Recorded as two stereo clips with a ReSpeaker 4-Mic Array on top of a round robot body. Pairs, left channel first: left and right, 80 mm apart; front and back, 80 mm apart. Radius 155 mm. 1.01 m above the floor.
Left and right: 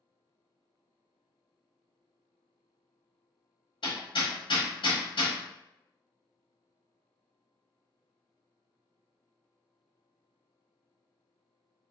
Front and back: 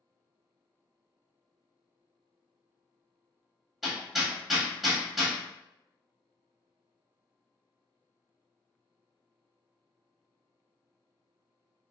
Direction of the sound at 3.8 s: 90° left.